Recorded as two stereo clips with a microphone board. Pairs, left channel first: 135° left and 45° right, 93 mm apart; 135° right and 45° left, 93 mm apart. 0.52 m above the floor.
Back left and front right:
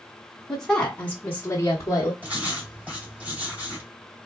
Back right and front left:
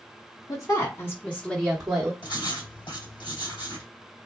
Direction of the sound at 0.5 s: 140° right.